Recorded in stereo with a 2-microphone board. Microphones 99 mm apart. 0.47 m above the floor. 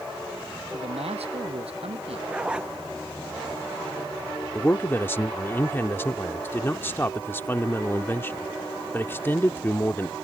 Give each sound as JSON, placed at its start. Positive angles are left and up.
{"t": 0.7, "sound": "a man speaking", "side_deg": -85}
{"t": 2.3, "sound": "a zipper", "side_deg": -10}
{"t": 4.5, "sound": "a man speaking", "side_deg": 25}